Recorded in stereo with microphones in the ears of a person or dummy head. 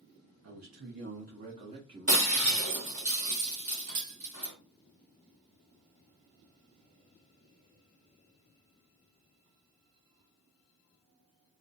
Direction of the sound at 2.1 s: 55° right (ahead or behind).